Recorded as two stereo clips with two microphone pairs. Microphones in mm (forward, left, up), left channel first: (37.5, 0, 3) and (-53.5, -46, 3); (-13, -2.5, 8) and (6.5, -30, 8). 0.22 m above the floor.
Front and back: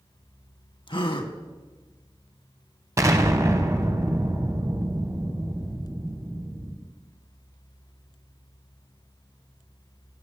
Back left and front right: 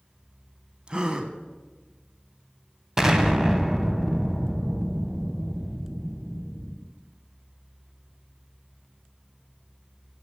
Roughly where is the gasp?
Ahead.